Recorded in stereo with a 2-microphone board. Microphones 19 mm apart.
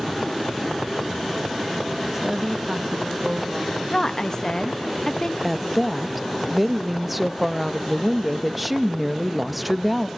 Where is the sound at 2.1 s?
20° right (ahead or behind), 1.1 m; by 3.8 s 40° right (ahead or behind), 1.7 m.